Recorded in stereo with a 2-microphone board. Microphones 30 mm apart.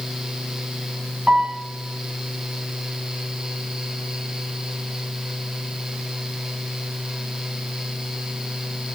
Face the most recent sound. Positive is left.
turn(degrees=-40)  # may be behind; listen again after turning